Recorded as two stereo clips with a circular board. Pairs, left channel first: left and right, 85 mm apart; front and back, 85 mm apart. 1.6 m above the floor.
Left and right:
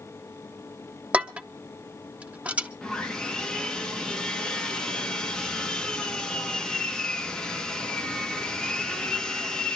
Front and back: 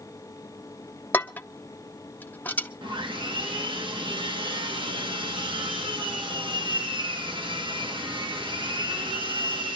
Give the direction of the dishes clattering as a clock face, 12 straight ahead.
1 o'clock.